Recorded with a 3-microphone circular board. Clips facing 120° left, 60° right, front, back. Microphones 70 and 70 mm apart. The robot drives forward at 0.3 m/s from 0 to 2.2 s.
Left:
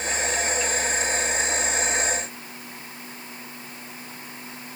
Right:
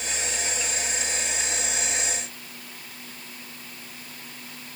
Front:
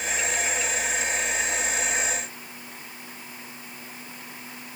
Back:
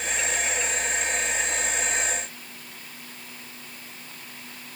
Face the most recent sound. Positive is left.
No sound to turn to.